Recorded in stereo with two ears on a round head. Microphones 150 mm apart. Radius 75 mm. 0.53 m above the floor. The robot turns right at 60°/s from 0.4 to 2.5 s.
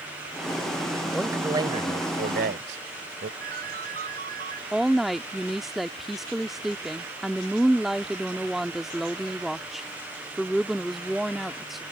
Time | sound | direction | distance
1.1 | a man speaking | straight behind | ?
3.4 | a ringtone | 55° right (ahead or behind) | ?
4.7 | a woman speaking | centre (ahead or behind) | ?